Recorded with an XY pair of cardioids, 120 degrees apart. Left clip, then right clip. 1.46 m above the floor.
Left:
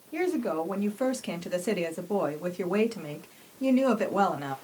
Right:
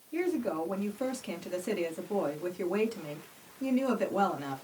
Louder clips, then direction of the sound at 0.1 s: Left 3 dB; 35° left.